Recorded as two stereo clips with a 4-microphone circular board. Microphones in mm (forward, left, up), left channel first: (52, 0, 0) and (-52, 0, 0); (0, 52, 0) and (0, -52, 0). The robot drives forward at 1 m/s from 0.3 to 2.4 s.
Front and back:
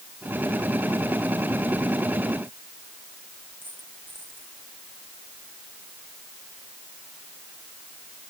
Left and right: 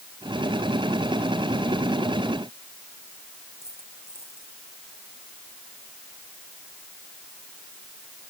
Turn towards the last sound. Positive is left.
turn(degrees=110)